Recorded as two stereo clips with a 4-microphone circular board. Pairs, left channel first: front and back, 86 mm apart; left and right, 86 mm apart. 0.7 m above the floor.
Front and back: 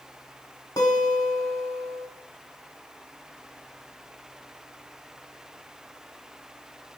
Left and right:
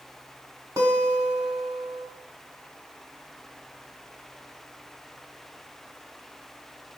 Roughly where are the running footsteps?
No running footsteps in this recording.